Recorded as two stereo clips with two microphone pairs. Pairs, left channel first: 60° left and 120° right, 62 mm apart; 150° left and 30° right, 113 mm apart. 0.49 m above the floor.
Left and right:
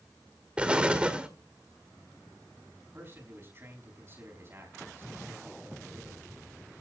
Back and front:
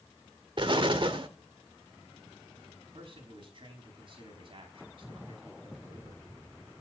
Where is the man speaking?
70° right, 5 m.